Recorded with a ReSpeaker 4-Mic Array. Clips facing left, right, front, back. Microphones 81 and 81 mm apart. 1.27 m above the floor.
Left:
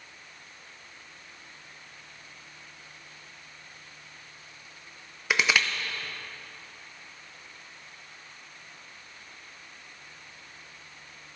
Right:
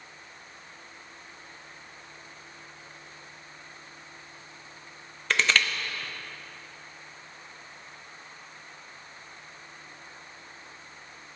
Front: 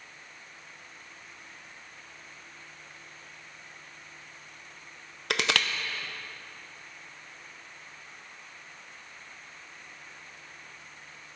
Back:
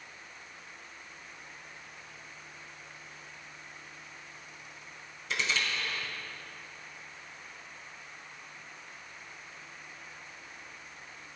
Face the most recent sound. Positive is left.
turn(degrees=10)